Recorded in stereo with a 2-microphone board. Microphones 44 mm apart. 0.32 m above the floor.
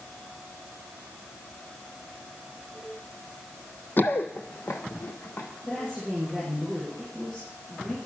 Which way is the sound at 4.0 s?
45° left (ahead or behind).